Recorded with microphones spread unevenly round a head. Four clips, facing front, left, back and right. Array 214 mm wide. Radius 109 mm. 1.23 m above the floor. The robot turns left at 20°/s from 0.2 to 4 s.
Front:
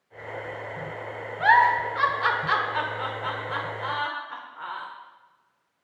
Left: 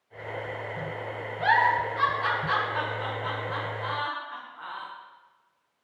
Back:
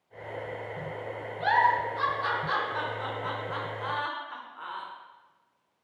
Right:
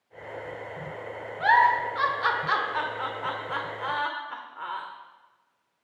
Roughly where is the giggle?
Ahead right.